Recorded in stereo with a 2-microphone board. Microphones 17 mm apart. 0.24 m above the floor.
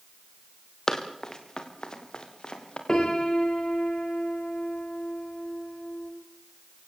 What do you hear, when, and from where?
0.9 s running footsteps: 25° left (ahead or behind), 3.5 m; by 2.8 s 50° left (ahead or behind), 5 m
2.9 s a piano: 35° left (ahead or behind), 4.5 m